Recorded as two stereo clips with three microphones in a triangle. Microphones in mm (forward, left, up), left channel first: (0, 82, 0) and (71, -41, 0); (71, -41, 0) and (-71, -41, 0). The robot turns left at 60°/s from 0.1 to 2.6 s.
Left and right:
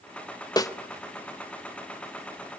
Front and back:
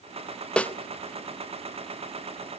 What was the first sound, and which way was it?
A snare drum, 75° left.